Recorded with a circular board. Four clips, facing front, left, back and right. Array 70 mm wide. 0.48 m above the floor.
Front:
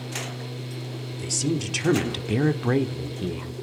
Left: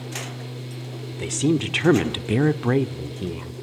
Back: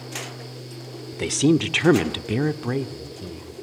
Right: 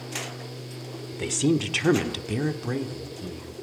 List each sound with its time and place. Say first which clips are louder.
1.1 s a woman speaking: left 2 dB, back 9 dB; 175° right, 1.5 m; by 3.5 s 50° left, 1.8 m